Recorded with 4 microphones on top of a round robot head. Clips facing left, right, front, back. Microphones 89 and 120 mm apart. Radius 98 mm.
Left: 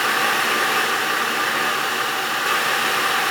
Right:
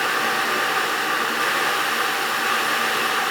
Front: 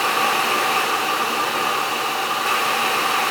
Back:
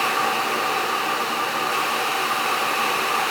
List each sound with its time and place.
Only background noise.